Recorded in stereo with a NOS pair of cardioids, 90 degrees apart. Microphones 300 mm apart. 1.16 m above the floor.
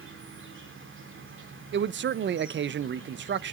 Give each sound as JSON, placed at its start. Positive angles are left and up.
{"t": 0.0, "sound": "an insect", "azimuth_deg": -40, "distance_m": 2.5}
{"t": 1.7, "sound": "a man speaking", "azimuth_deg": -40, "distance_m": 0.6}